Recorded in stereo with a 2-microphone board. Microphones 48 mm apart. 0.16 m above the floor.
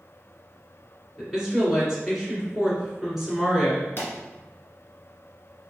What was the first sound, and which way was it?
A woman speaking, centre (ahead or behind).